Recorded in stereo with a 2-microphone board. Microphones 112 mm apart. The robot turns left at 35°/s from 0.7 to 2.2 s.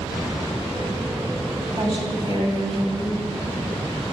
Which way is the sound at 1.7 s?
45° right (ahead or behind).